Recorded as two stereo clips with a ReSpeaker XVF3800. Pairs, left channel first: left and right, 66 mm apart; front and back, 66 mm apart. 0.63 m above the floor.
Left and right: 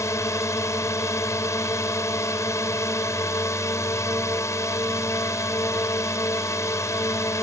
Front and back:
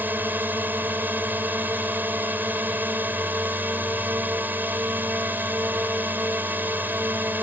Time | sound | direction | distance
0.0 | a drone | 125° left | ?